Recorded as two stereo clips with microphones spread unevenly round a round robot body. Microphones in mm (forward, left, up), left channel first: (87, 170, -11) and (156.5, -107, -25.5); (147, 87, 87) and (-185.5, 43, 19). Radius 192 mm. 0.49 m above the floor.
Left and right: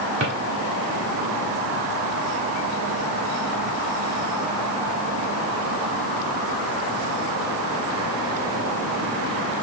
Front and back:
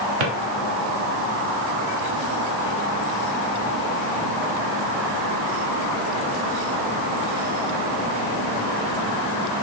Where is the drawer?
140° right, 0.8 m.